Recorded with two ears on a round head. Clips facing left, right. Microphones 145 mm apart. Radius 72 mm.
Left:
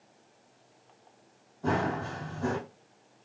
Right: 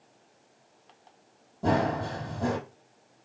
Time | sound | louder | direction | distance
1.6 | running footsteps | right 4 dB | 65° right (ahead or behind) | 2.5 m